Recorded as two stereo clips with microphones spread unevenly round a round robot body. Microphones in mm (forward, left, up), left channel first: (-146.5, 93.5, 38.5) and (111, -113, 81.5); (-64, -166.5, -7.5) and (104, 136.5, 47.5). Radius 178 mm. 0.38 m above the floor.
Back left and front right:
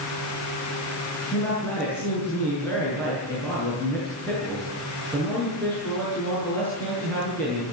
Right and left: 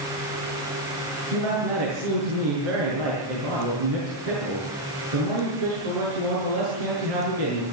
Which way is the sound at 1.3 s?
55° left.